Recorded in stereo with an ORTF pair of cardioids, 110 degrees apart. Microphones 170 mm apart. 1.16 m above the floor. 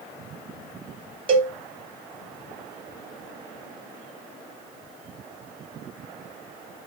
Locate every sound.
1.3 s a cowbell: 35° right, 0.6 m